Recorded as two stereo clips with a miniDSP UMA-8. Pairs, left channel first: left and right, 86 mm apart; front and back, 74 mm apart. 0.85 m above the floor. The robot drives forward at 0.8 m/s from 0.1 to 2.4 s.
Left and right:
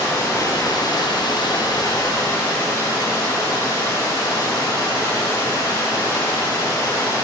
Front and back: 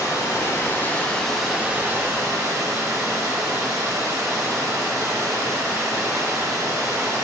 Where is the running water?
35° left, 1.3 m; by 7.2 s 140° left, 1.2 m.